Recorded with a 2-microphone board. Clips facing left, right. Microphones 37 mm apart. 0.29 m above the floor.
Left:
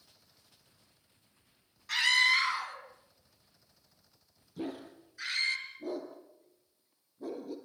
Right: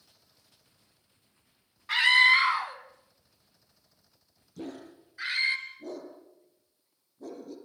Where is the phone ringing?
I don't hear a phone ringing.